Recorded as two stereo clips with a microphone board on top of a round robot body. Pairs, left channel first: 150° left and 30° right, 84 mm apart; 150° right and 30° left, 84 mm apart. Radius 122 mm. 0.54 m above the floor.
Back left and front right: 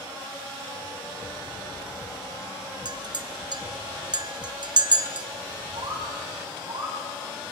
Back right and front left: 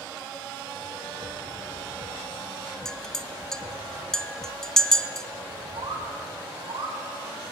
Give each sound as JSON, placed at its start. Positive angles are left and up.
{"t": 2.9, "sound": "a clink", "azimuth_deg": -65, "distance_m": 1.2}
{"t": 5.8, "sound": "a bird", "azimuth_deg": 5, "distance_m": 4.5}